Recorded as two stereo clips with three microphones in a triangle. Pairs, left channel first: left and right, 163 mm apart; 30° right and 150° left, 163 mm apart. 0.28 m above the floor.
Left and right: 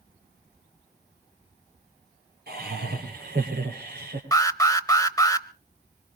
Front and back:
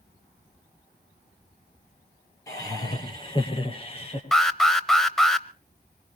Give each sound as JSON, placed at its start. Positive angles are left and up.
{"t": 2.5, "sound": "laughter", "azimuth_deg": -100, "distance_m": 5.5}
{"t": 4.3, "sound": "an alarm", "azimuth_deg": 55, "distance_m": 0.7}